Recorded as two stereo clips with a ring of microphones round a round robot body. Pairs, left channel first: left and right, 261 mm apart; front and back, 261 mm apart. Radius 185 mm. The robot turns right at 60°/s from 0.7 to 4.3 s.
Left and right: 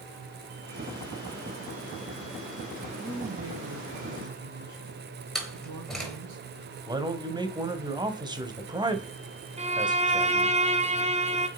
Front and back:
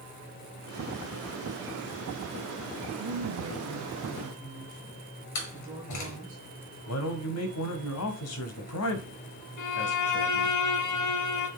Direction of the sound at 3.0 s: 170° right.